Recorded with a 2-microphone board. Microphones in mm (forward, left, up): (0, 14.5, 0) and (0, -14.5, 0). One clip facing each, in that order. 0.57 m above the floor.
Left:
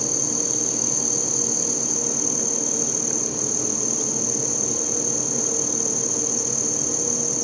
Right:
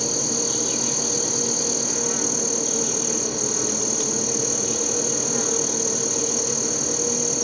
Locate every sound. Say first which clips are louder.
0.0 s an insect: right 2 dB; 65° right (ahead or behind)